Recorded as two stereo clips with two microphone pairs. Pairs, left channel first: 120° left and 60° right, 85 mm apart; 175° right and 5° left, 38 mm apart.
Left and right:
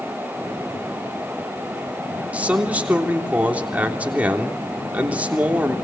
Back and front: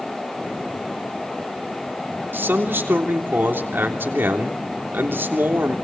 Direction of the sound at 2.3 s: 15° left.